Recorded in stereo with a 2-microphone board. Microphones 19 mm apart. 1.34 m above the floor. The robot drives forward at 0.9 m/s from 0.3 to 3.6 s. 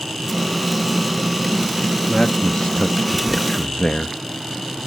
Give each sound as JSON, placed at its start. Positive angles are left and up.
{"t": 2.1, "sound": "a man speaking", "side_deg": 50}